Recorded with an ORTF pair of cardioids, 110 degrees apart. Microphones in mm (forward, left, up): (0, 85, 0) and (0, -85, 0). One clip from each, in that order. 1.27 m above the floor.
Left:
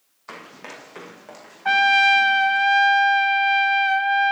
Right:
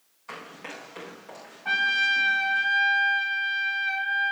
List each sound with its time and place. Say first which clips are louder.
0.3 s running footsteps: left 1 dB; 45° left, 4 m; by 2.6 s 50° left, 5.5 m
1.6 s a trumpet: left 7 dB; 50° left, 0.9 m